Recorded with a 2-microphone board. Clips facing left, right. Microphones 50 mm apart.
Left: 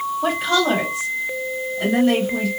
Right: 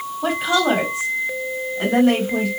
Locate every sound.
0.2 s a woman speaking: 5° left (ahead or behind), 1.1 m; by 2.5 s 45° right (ahead or behind), 2.5 m